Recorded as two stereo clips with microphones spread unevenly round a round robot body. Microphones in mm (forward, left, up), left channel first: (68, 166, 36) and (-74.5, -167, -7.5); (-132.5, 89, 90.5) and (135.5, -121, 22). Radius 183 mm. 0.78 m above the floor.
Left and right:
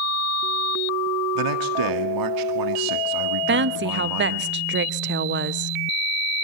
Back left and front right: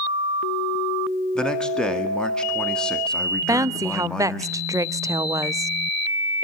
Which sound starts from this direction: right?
A woman speaking, at 3.5 s.